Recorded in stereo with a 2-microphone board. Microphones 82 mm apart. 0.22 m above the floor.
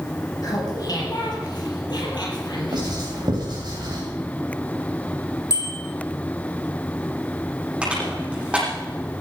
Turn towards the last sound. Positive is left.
turn(degrees=-15)  # may be behind; listen again after turning